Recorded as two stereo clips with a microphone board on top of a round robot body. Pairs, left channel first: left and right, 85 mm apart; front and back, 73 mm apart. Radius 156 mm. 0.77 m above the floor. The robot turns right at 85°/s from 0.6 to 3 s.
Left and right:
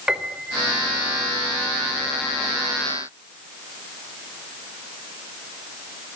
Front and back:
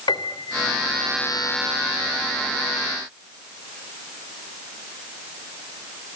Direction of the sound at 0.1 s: 5° right.